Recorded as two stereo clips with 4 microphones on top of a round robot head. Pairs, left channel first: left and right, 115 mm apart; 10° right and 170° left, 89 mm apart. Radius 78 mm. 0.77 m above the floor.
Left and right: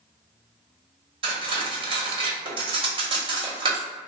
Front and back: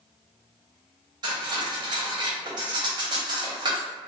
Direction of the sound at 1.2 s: 135° right.